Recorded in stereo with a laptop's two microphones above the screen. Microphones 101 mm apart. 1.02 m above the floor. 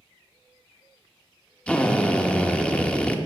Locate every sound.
1.7 s a drill: 10° left (ahead or behind), 0.7 m